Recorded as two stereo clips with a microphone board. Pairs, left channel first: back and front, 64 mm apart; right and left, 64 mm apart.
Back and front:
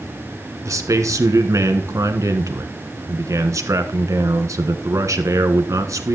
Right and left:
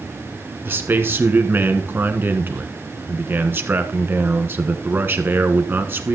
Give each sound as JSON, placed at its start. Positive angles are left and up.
{"t": 0.7, "sound": "a man speaking", "azimuth_deg": 35, "distance_m": 1.4}